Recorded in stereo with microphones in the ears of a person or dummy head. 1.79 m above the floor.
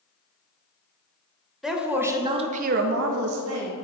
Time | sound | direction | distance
1.6 | a woman speaking | centre (ahead or behind) | 1.0 m